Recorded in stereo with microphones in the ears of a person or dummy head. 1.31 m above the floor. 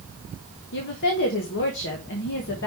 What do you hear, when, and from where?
0.7 s a woman speaking: 55° left (ahead or behind), 1.2 m